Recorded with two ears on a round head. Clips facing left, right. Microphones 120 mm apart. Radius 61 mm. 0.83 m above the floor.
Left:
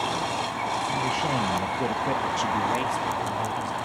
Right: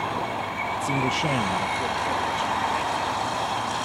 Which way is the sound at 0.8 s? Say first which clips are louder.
Right 4 dB; 50° right (ahead or behind).